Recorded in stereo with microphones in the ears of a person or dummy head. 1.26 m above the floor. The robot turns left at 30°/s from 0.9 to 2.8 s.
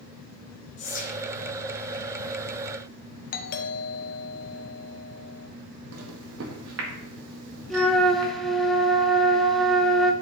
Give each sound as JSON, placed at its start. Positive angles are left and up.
{"t": 0.8, "sound": "whispering", "side_deg": 40, "distance_m": 1.5}
{"t": 3.3, "sound": "a doorbell", "side_deg": 35, "distance_m": 1.0}
{"t": 5.9, "sound": "a microwave", "side_deg": -80, "distance_m": 1.8}
{"t": 7.7, "sound": "a flute", "side_deg": 0, "distance_m": 1.1}